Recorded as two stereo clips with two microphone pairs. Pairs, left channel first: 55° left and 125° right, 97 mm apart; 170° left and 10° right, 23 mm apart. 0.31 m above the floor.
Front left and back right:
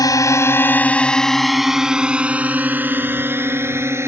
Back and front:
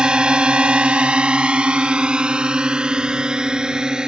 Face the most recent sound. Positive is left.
turn(degrees=-65)